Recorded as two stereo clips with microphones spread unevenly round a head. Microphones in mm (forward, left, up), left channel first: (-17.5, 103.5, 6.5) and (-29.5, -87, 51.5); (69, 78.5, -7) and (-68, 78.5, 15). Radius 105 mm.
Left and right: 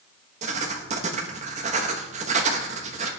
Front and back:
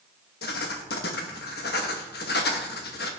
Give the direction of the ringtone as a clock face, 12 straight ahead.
I don't hear a ringtone.